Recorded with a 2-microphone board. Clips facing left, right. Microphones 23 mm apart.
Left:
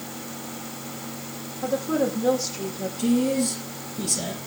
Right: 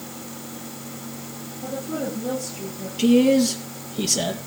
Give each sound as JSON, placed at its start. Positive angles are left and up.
{"t": 1.6, "sound": "a woman speaking", "side_deg": 50, "distance_m": 5.5}
{"t": 3.0, "sound": "a man speaking", "side_deg": -55, "distance_m": 3.0}